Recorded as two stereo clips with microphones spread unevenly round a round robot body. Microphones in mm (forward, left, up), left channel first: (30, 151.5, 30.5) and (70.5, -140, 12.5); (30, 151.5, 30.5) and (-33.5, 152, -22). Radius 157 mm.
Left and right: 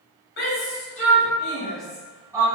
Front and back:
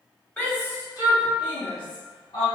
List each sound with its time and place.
0.4 s a shout: 120° left, 1.2 m; by 2.5 s 10° right, 1.3 m